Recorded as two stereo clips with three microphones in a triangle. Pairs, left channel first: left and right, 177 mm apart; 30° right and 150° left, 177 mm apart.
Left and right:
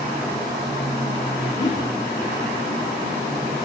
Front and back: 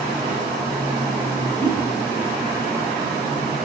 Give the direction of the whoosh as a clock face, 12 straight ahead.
11 o'clock.